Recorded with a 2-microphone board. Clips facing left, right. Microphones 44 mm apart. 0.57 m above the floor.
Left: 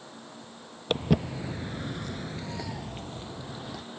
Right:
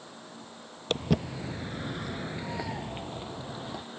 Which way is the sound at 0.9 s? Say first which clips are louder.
Left 2 dB; 5° left (ahead or behind).